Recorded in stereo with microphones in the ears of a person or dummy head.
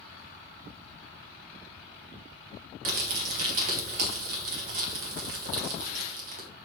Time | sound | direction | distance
2.9 | crumpling | 45° right (ahead or behind) | 1.2 m